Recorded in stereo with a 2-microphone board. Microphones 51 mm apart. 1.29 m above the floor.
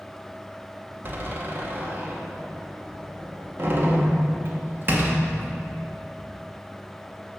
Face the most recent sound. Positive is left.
turn(degrees=-45)  # may be behind; listen again after turning